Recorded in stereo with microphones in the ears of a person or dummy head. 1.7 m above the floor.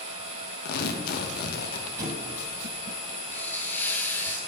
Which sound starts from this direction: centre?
A hiss, at 3.3 s.